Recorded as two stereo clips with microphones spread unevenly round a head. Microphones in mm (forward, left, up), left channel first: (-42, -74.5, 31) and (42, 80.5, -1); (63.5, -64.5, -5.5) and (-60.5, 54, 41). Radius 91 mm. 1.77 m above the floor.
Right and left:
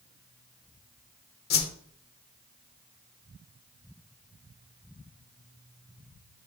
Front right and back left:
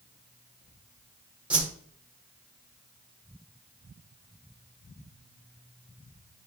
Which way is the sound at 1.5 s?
145° right.